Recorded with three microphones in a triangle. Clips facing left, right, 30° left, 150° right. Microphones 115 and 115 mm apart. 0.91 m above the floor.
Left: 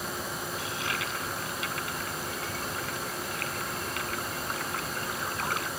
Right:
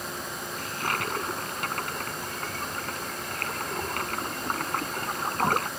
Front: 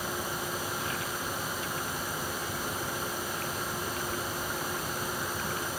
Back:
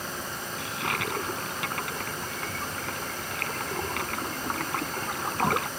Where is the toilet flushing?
130° right.